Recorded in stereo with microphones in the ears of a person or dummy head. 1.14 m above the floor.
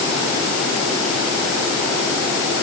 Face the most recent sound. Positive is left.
No sound to turn to.